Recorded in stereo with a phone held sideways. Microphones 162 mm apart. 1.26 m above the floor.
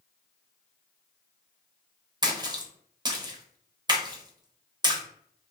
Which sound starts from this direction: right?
A splash, at 2.2 s.